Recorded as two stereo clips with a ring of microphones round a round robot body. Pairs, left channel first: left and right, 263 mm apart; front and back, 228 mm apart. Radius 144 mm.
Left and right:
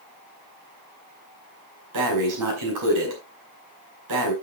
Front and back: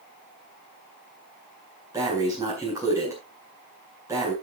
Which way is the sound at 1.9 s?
100° right.